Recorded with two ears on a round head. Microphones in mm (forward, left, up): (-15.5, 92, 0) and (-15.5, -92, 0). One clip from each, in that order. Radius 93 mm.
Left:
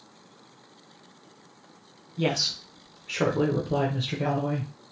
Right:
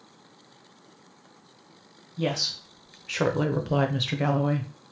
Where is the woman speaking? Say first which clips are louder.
Left 1 dB; 15° left (ahead or behind), 0.9 m; by 4.7 s 60° right (ahead or behind), 0.9 m.